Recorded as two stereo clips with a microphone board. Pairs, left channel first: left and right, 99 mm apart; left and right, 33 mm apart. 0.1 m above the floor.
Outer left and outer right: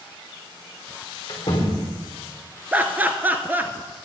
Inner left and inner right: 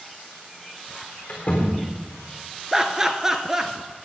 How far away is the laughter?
About 1.2 m.